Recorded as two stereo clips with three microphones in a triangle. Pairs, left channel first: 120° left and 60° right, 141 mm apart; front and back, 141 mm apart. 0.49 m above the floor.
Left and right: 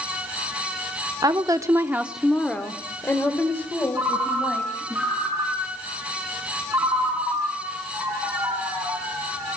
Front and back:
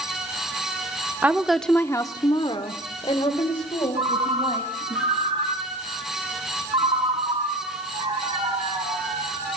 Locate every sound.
1.2 s a woman speaking: 110° right, 0.9 m; by 5.0 s 50° left, 3 m
4.0 s a ringtone: 135° right, 6.5 m